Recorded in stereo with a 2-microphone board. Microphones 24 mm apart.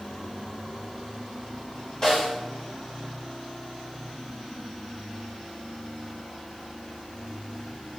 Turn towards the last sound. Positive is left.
turn(degrees=25)  # may be behind; listen again after turning